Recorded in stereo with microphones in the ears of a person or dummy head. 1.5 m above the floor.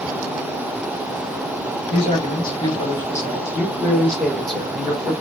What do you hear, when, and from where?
1.9 s a man speaking: 40° left (ahead or behind), 2 m; by 5.1 s 5° right (ahead or behind), 3 m